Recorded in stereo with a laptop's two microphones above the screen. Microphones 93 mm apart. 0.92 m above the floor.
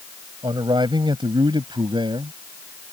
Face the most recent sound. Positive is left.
turn(degrees=-60)  # may be behind; listen again after turning